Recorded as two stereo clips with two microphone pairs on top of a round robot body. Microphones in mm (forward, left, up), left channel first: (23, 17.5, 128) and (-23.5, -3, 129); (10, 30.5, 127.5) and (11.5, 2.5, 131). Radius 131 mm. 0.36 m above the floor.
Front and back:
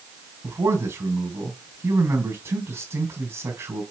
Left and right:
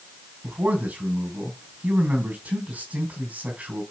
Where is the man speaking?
135° right, 3.5 m.